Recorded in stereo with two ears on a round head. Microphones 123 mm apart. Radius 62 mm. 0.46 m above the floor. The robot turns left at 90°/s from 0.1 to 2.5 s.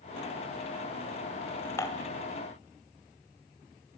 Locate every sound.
1.8 s dishes clattering: 20° left (ahead or behind), 1.7 m; by 2.1 s 45° left (ahead or behind), 1.7 m